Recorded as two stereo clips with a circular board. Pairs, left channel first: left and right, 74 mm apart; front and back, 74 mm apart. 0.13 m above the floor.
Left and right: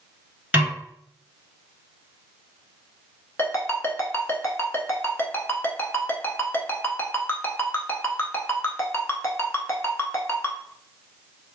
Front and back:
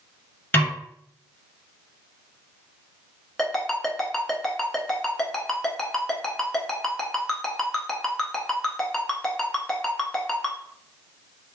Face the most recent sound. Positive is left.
turn(degrees=80)